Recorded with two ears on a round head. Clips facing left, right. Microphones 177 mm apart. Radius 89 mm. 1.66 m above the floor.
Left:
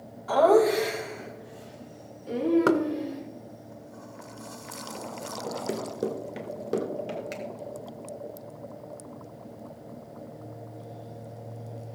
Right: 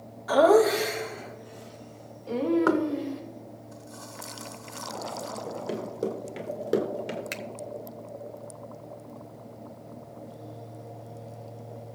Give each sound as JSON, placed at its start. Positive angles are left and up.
{"t": 0.3, "sound": "laughter", "side_deg": -15, "distance_m": 1.9}
{"t": 2.7, "sound": "knocking", "side_deg": 35, "distance_m": 0.8}
{"t": 5.5, "sound": "running footsteps", "side_deg": 30, "distance_m": 2.0}
{"t": 7.3, "sound": "a finger snap", "side_deg": -65, "distance_m": 1.0}